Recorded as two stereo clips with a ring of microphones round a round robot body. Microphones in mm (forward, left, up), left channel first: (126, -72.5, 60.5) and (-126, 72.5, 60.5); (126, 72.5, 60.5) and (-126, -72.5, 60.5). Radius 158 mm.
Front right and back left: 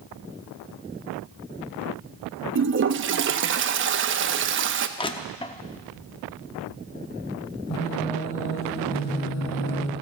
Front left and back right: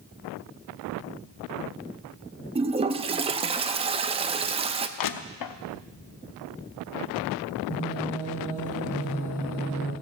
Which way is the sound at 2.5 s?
150° left.